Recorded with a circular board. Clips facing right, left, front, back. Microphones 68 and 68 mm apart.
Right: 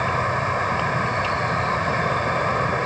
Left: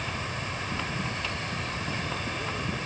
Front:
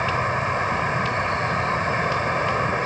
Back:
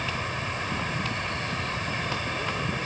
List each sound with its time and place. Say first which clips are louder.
0.0 s an insect: right 12 dB, front 9 dB; 55° right